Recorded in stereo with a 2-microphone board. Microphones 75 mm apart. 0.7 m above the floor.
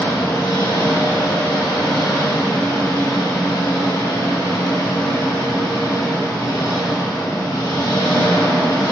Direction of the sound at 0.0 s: 60° left (ahead or behind).